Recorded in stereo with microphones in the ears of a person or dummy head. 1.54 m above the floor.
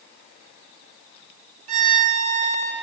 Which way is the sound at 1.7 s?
50° right (ahead or behind).